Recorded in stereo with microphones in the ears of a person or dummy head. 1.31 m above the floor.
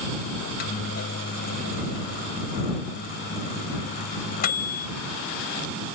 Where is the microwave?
55° left (ahead or behind).